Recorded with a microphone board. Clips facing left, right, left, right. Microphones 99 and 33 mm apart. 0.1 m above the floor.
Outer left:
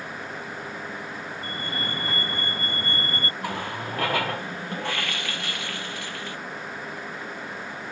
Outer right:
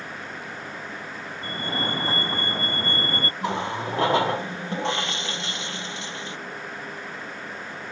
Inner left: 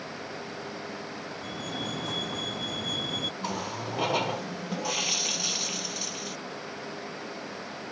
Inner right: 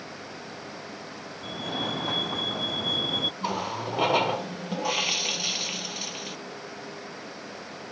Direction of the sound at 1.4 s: 30° right (ahead or behind).